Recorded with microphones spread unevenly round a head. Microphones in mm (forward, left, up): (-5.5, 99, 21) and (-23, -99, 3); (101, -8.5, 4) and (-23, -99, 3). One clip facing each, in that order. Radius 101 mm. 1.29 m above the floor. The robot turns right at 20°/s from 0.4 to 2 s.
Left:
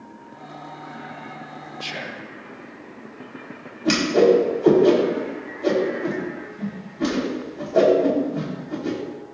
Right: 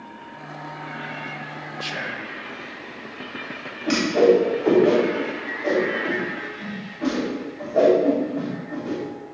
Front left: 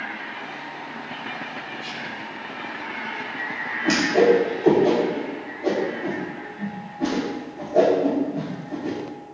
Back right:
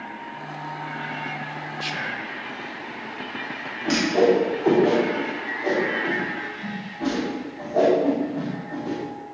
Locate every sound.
1.8 s whispering: 175° left, 0.8 m; by 2.3 s straight behind, 0.8 m
3.9 s a whoosh: 110° left, 4 m